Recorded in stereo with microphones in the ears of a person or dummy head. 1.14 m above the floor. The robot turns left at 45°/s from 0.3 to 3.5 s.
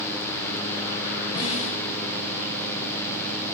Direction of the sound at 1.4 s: 20° left (ahead or behind).